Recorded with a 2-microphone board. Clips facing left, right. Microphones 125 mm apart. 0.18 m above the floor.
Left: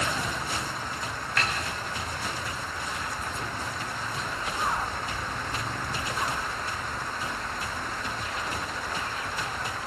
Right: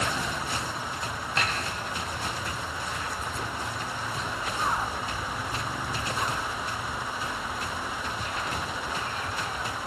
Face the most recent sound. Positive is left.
turn(degrees=-25)  # may be behind; listen again after turning